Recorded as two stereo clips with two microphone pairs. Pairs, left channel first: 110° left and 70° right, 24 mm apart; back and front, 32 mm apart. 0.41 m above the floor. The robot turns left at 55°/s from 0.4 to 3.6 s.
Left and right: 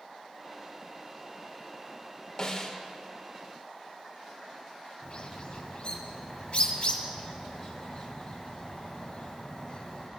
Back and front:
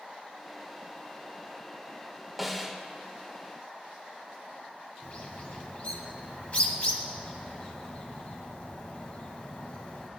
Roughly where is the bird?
Behind left.